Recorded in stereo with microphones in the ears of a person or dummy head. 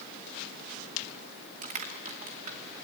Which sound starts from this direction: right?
Crushing, at 1.6 s.